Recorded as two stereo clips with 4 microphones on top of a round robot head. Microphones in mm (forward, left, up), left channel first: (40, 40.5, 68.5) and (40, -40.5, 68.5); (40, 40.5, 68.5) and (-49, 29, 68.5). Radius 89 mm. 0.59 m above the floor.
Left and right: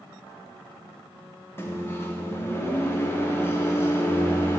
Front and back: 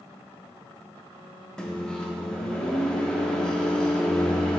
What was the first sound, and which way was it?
A microwave, 80° left.